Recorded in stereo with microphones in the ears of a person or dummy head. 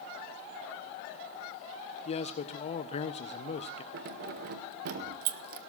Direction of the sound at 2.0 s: 35° left (ahead or behind).